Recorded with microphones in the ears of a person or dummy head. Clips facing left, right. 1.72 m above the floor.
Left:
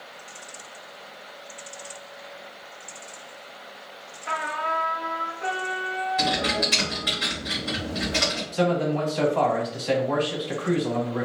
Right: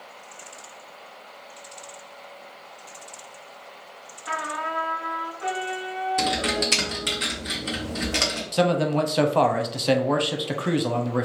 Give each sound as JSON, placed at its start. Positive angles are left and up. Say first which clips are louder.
{"t": 4.3, "sound": "a trumpet", "louder": "left 1 dB", "side_deg": 40, "distance_m": 1.6}
{"t": 6.2, "sound": "typing on a keyboard", "louder": "even", "side_deg": -40, "distance_m": 1.0}
{"t": 8.5, "sound": "a man speaking", "louder": "right 2 dB", "side_deg": -55, "distance_m": 0.6}